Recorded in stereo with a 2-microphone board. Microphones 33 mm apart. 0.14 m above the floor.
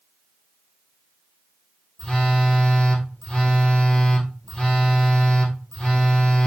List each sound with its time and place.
2.0 s a phone buzzing: 35° left (ahead or behind), 1.3 m